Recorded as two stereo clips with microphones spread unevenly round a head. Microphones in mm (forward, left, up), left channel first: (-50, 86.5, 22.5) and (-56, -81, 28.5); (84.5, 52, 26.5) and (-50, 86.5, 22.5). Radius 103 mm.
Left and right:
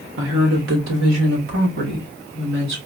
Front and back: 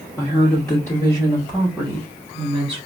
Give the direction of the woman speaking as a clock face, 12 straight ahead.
3 o'clock.